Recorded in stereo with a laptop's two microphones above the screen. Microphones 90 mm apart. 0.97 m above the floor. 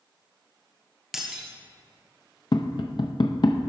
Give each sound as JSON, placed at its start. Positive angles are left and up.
{"t": 1.1, "sound": "breaking glass", "side_deg": -5, "distance_m": 1.4}
{"t": 2.5, "sound": "tapping", "side_deg": 55, "distance_m": 0.6}